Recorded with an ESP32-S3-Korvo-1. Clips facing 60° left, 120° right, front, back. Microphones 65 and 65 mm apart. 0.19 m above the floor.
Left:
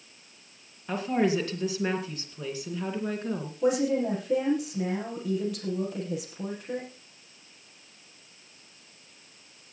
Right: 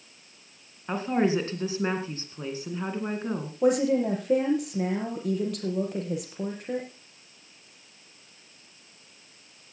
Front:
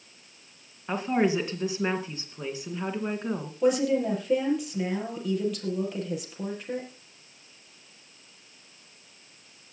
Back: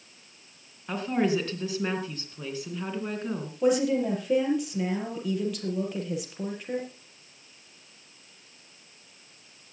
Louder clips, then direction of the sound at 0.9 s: Right 1 dB, front 1 dB; 70° right.